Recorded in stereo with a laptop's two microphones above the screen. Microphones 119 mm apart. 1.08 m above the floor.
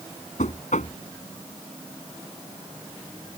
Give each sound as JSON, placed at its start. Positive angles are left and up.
{"t": 0.4, "sound": "knocking", "side_deg": 80}